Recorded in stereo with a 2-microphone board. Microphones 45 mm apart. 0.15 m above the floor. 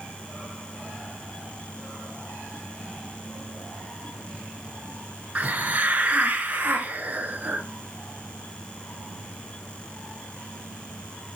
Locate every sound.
5.3 s a hiss: 35° right (ahead or behind), 0.6 m